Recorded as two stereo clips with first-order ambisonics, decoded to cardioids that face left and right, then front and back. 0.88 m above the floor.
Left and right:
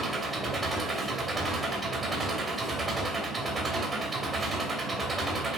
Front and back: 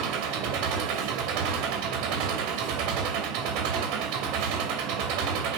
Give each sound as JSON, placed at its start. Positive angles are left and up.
{"t": 0.0, "sound": "an engine running", "azimuth_deg": -165, "distance_m": 3.0}